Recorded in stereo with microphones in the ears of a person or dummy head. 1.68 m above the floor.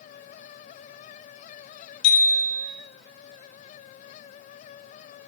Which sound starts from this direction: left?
A bicycle bell, at 2.0 s.